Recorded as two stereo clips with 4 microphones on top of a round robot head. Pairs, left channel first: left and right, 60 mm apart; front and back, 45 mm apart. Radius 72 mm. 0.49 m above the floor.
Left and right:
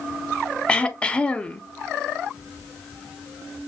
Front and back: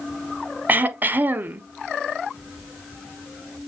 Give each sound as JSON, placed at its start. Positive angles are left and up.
{"t": 0.7, "sound": "throat clearing", "azimuth_deg": 155, "distance_m": 0.6}